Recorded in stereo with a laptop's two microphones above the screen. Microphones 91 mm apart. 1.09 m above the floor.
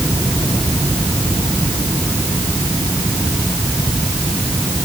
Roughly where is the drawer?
No drawer in this recording.